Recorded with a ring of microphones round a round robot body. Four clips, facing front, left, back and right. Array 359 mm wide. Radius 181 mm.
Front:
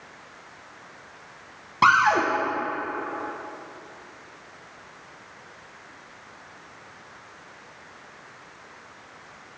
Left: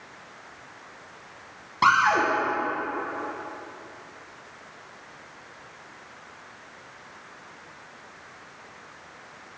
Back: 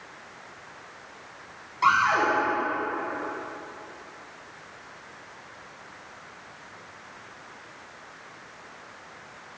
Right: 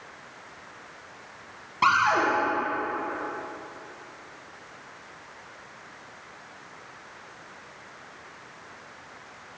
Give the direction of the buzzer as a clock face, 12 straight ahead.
I don't hear a buzzer.